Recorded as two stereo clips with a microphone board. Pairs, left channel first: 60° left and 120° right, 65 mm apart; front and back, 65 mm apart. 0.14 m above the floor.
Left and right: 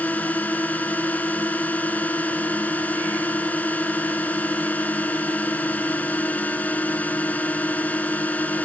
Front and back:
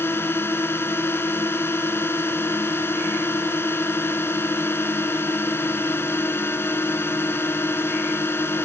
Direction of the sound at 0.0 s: 10° left.